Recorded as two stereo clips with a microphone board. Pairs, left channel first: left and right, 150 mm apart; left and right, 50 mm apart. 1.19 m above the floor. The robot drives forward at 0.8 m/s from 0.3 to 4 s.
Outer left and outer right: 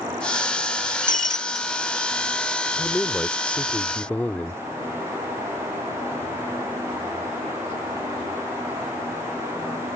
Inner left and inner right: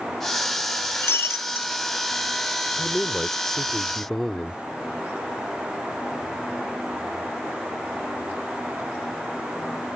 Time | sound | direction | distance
1.0 | breaking glass | 60° left (ahead or behind) | ?
2.8 | a man speaking | 5° left (ahead or behind) | ?